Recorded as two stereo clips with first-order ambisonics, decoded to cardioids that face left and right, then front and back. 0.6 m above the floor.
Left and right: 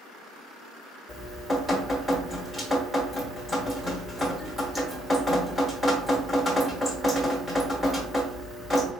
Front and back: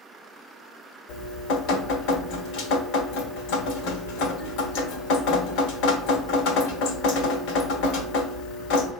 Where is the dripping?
Straight ahead, 1.2 m.